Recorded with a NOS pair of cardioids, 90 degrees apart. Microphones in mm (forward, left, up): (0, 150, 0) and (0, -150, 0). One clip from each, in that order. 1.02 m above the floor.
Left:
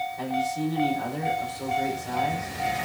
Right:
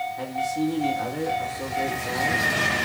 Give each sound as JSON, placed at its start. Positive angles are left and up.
{"t": 0.2, "sound": "a man speaking", "azimuth_deg": -30, "distance_m": 4.5}